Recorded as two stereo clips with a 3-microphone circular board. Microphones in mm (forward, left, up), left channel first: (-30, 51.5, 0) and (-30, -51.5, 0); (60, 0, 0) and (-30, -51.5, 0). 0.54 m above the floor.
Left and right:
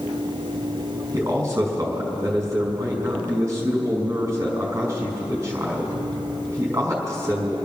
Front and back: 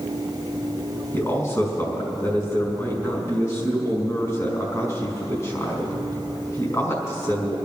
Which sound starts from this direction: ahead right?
A man speaking, at 1.1 s.